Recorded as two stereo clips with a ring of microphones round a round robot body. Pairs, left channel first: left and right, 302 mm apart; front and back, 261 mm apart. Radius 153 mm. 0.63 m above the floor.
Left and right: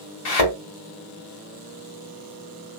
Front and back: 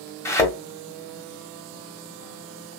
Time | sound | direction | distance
0.2 | a thud | 80° left | 1.9 m